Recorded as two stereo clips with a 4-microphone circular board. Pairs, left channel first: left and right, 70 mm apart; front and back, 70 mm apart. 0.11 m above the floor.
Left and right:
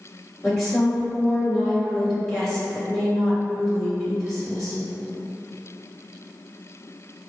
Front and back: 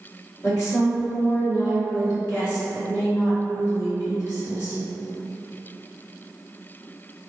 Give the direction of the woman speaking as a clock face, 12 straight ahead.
12 o'clock.